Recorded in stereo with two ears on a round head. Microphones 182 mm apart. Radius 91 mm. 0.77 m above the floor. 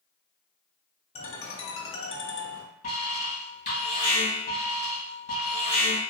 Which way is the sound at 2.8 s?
35° left (ahead or behind).